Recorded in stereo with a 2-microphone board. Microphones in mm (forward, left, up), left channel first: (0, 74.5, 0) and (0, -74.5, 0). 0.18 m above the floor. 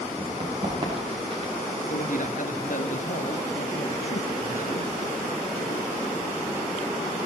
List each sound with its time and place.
0.2 s running footsteps: 40° right (ahead or behind), 9 m
1.9 s a man speaking: 65° left (ahead or behind), 2.5 m